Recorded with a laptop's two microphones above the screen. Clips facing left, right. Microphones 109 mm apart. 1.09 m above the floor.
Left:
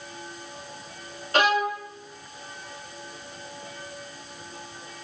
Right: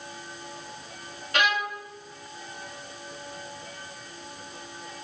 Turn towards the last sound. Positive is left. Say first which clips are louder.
# left 5 dB
turn(degrees=35)  # may be behind; listen again after turning